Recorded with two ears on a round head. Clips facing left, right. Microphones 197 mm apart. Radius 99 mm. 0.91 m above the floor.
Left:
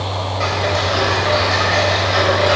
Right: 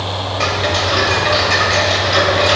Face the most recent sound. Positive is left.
turn(degrees=-45)  # may be behind; listen again after turning